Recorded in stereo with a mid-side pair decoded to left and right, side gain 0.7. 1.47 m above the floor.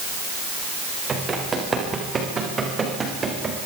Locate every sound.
1.1 s running footsteps: 25° right, 8.5 m